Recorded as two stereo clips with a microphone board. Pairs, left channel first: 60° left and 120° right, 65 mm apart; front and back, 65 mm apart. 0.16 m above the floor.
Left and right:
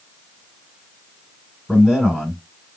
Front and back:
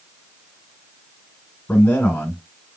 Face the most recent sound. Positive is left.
turn(degrees=-45)